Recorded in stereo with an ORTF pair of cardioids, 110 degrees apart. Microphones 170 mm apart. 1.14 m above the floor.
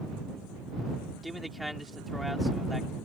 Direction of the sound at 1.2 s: Straight ahead.